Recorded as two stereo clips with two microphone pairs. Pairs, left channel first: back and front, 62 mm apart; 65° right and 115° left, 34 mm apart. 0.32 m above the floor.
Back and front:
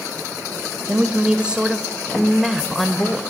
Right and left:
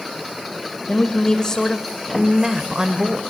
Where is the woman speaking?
55° right, 1.8 m; by 3.2 s 100° left, 1.7 m.